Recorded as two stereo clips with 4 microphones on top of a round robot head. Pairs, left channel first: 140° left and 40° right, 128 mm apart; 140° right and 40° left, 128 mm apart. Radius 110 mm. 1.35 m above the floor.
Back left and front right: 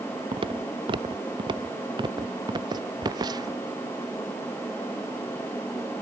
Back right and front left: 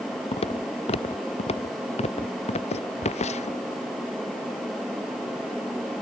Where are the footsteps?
95° right; by 3.6 s 105° right.